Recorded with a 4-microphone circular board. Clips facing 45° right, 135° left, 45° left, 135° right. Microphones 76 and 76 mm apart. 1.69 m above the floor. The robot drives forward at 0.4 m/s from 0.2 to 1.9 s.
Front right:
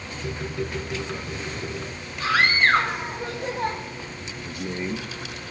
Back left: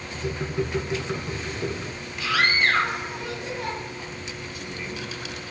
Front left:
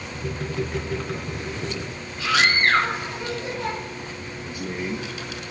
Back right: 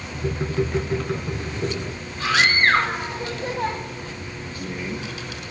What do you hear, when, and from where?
2.2 s a scream: 90° right, 9.5 m
4.5 s a man speaking: 25° right, 1.9 m